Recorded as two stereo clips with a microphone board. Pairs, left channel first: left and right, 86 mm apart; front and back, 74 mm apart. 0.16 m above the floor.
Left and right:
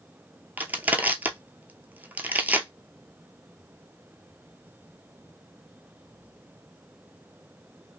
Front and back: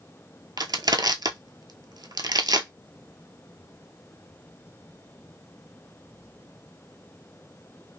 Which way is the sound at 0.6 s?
160° right.